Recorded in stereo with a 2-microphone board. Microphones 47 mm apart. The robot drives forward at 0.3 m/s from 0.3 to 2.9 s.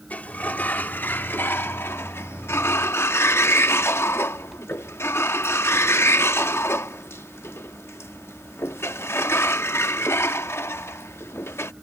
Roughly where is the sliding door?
Left.